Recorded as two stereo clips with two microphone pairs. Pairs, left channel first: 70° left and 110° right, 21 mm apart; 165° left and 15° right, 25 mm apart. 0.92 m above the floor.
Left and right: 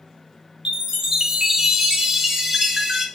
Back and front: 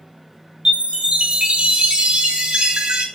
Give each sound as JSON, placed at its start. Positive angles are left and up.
{"t": 0.7, "sound": "a chime", "azimuth_deg": -55, "distance_m": 0.9}